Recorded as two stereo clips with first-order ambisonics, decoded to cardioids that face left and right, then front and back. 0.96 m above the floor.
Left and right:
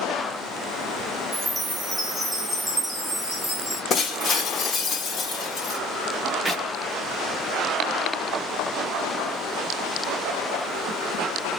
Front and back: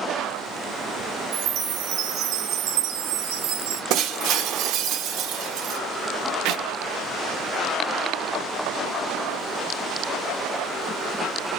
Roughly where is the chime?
Behind.